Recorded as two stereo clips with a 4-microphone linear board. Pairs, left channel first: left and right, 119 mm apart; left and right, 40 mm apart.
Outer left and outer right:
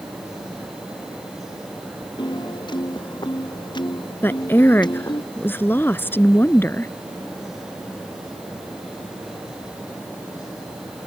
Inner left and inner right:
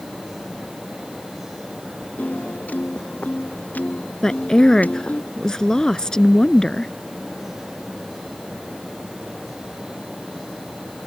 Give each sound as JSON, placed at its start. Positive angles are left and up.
{"t": 2.2, "sound": "a piano", "side_deg": 35}
{"t": 4.2, "sound": "a woman speaking", "side_deg": 15}